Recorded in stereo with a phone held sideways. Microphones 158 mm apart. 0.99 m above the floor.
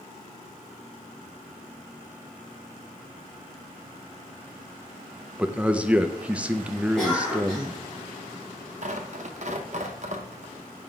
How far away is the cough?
About 2.0 m.